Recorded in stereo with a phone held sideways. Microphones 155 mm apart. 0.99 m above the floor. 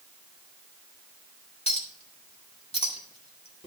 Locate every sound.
1.7 s a clink: 40° left (ahead or behind), 1.6 m